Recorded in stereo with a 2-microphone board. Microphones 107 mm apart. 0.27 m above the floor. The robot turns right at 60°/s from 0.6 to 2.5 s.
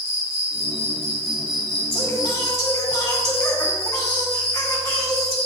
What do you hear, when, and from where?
0.0 s an insect: 105° right, 1.2 m; by 5.5 s 10° left, 1.2 m
1.9 s singing: 90° left, 2.5 m; by 5.3 s 130° left, 2.5 m